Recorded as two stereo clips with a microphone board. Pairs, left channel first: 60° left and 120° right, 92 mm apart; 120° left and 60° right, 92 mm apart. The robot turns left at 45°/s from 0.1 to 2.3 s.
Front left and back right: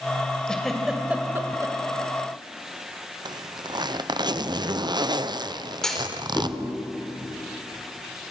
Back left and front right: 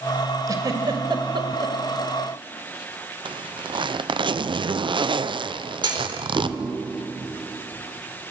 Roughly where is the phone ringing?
No phone ringing in this recording.